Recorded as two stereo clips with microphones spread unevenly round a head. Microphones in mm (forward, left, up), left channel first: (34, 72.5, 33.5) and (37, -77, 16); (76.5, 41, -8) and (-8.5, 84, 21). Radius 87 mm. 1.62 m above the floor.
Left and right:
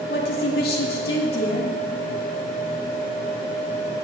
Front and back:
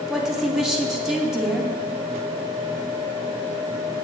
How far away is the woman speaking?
About 2.5 m.